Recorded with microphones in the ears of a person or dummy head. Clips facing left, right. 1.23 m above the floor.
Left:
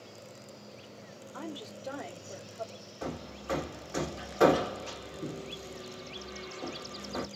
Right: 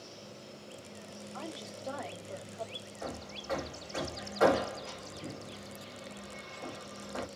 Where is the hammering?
50° left (ahead or behind), 0.8 m.